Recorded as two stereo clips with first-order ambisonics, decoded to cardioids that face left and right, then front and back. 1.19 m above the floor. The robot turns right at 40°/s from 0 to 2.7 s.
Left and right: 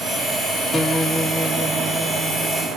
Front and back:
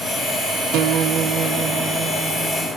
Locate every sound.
0.7 s a guitar: 160° left, 1.0 m; by 2.7 s 120° right, 1.0 m